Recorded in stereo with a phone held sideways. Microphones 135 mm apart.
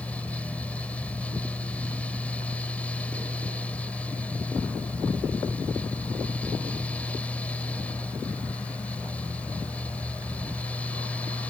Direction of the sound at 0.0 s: 10° left (ahead or behind).